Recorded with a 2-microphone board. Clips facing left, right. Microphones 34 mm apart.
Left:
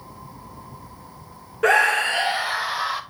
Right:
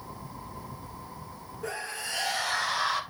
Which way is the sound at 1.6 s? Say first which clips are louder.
Left 19 dB; 70° left (ahead or behind).